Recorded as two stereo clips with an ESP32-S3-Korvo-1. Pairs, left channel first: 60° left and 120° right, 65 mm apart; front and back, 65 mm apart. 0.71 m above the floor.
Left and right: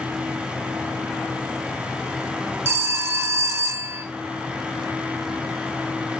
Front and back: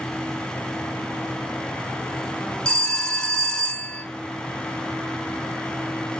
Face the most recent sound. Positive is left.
turn(degrees=-75)